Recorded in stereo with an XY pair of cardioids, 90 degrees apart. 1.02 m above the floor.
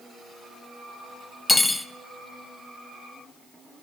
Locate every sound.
1.5 s cutlery clinking: 25° left, 0.8 m